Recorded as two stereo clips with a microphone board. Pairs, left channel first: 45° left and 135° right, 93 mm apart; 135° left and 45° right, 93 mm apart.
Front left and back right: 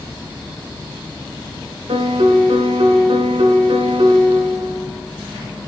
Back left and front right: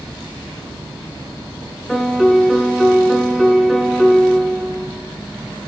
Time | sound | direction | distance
1.9 | a piano | 135° right | 1.3 m